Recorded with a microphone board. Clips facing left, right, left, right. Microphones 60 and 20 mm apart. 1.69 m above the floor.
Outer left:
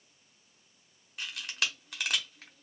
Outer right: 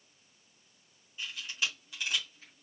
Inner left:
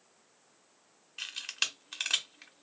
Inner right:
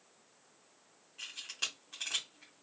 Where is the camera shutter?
70° left (ahead or behind), 1.1 m.